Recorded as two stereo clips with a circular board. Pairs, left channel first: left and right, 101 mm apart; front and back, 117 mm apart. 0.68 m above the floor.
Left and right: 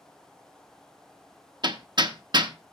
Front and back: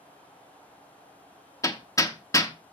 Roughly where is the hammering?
Ahead right.